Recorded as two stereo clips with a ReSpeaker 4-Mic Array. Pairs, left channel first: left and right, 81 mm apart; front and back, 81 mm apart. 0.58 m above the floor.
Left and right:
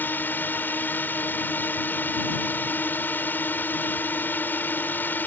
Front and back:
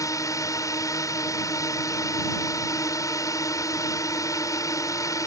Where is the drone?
30° left.